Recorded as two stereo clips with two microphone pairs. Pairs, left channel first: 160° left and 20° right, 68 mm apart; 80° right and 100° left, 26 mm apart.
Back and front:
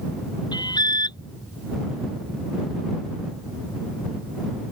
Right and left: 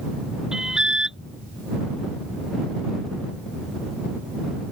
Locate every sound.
0.5 s an alarm: 160° left